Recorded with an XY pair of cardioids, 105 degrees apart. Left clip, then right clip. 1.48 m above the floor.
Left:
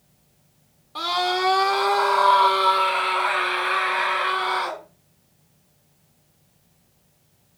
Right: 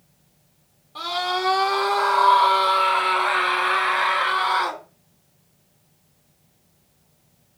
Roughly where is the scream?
Ahead left.